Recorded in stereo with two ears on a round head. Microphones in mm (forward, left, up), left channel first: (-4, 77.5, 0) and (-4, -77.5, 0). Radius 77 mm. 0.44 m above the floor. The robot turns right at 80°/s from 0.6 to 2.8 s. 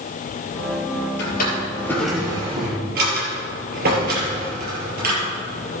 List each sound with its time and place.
1.2 s a drawer: 70° left (ahead or behind), 4.5 m; by 5.8 s 60° right (ahead or behind), 4.5 m